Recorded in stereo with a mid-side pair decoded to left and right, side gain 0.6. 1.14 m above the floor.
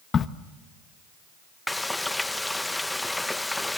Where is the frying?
10° left, 0.7 m.